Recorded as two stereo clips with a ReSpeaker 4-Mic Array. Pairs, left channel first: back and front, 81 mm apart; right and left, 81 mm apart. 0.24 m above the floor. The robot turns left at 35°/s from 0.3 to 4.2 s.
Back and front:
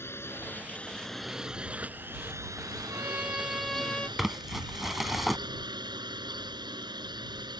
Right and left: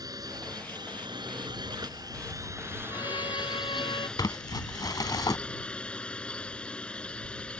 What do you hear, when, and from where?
0.0 s a drone: 120° left; by 7.6 s 15° right
2.9 s a violin: 60° right; by 4.1 s 105° right
4.2 s crumpling: 85° right; by 5.4 s 90° right